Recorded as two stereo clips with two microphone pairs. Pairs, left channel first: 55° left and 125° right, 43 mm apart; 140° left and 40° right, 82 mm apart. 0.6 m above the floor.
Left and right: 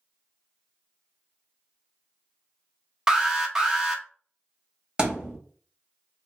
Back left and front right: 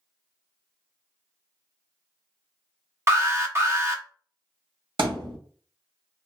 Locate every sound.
3.1 s an alarm: 50° right, 1.0 m
5.0 s a thud: 55° right, 1.7 m